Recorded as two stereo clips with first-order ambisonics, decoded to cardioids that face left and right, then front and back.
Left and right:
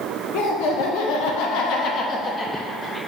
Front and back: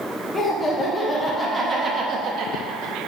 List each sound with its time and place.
0.3 s laughter: 75° left, 1.2 m; by 3.0 s straight behind, 0.8 m